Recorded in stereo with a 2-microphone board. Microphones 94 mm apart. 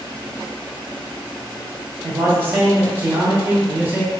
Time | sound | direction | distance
2.0 | a man speaking | 20° right (ahead or behind) | 0.9 m